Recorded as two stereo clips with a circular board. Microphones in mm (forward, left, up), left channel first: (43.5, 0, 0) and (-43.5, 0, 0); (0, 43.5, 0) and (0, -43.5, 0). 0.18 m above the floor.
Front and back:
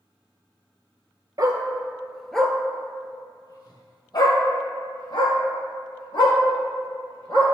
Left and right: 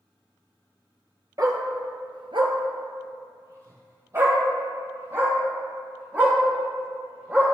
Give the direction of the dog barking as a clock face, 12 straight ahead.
5 o'clock.